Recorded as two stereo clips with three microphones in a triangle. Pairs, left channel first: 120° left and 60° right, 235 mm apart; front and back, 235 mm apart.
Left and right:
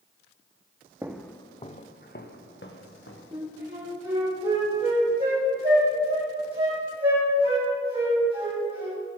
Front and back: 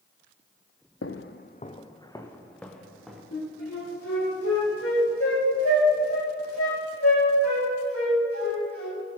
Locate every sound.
1.0 s footsteps: 15° left, 0.8 m; by 3.2 s 90° left, 2.5 m
3.3 s a flute: 5° left, 5 m